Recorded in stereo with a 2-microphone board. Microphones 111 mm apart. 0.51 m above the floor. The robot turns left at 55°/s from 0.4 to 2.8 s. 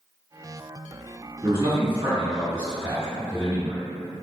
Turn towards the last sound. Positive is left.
turn(degrees=-25)  # may be behind; listen again after turning